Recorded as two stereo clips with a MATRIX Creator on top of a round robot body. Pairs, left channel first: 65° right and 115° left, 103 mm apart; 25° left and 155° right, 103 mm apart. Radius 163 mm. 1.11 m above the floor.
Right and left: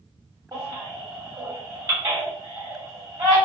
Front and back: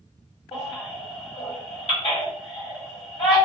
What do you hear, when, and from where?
0.5 s a baby crying: 55° left, 2 m